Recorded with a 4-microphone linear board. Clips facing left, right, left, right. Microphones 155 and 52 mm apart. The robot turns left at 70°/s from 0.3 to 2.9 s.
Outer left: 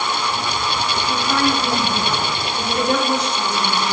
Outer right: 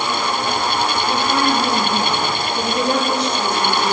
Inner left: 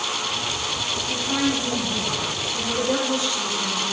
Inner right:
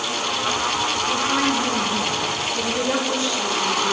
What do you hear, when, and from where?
1.1 s a woman speaking: 5° left, 3 m; by 3.9 s 120° right, 3 m